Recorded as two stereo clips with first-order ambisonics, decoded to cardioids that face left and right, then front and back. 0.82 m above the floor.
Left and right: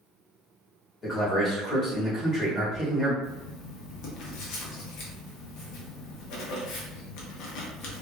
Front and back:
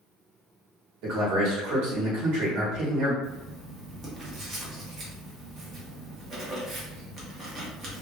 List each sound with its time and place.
1.0 s a man speaking: 160° left, 1.5 m
3.2 s writing: 110° left, 0.9 m